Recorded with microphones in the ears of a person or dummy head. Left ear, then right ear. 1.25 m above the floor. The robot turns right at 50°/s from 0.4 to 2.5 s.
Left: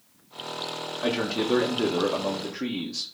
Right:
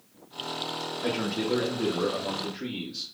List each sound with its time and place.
1.0 s a man speaking: 30° left, 1.5 m; by 3.1 s 100° left, 1.5 m